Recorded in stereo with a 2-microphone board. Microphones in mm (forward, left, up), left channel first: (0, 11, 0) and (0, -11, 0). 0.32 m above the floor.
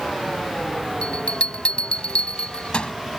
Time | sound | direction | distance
1.0 | a bell | 55° left (ahead or behind) | ?